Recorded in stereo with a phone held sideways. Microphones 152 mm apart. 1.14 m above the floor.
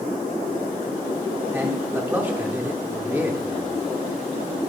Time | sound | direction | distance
1.5 | a man speaking | 15° right (ahead or behind) | 0.9 m